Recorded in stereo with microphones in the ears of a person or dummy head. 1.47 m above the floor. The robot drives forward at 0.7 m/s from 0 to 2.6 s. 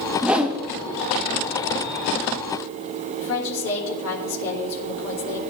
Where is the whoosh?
5° right (ahead or behind), 0.5 m.